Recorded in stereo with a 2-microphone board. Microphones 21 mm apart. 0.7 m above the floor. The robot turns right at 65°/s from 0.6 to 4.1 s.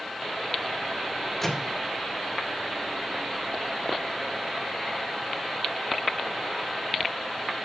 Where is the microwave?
15° left (ahead or behind), 1.8 m; by 1.8 s 10° right (ahead or behind), 1.8 m.